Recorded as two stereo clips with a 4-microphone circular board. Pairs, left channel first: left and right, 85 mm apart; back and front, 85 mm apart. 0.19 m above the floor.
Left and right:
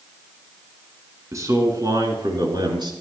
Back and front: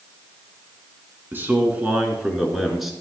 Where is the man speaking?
55° right, 2.5 m; by 2.9 s 90° right, 3 m.